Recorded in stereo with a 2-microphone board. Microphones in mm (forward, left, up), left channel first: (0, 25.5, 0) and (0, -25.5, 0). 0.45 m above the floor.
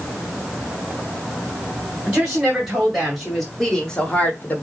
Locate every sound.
2.1 s a woman speaking: 15° right (ahead or behind), 2.5 m; by 4.6 s 40° left (ahead or behind), 1.0 m